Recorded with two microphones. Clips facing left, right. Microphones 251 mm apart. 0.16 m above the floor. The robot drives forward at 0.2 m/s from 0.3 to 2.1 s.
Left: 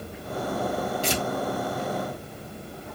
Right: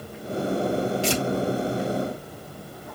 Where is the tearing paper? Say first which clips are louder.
Right 3 dB; 45° left (ahead or behind), 1.4 m.